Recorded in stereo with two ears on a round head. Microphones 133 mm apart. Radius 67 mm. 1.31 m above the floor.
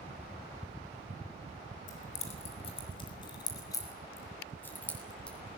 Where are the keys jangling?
55° left (ahead or behind), 5 m; by 5.6 s 5° left (ahead or behind), 7.5 m.